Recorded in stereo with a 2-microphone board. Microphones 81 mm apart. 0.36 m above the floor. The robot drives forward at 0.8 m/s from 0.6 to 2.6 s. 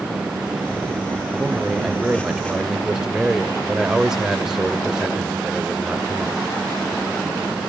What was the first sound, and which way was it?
A man speaking, 5° right (ahead or behind).